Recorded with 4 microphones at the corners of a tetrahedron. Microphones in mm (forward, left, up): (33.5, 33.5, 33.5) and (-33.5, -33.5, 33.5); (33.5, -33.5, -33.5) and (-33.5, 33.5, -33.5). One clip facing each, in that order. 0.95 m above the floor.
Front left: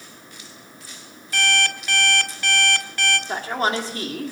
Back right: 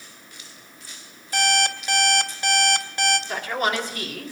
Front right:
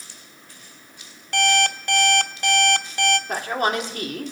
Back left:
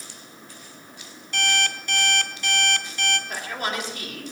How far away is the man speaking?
About 2.5 m.